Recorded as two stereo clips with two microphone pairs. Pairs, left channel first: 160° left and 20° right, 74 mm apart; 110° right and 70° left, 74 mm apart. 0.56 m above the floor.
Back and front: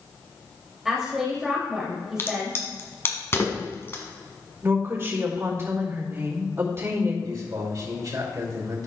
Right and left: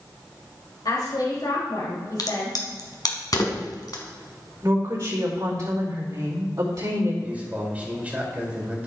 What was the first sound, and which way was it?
A woman speaking, 105° right.